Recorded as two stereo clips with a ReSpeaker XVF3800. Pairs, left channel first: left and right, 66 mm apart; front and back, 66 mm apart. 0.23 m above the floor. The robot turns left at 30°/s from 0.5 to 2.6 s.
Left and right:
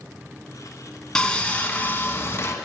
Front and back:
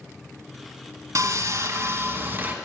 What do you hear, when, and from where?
1.1 s sawing: 170° left, 1.1 m; by 2.5 s 125° left, 1.1 m